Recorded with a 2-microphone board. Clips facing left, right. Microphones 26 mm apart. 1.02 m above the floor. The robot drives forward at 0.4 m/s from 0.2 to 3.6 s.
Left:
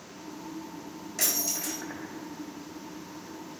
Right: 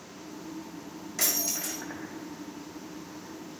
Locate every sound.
1.2 s breaking glass: 5° right (ahead or behind), 4 m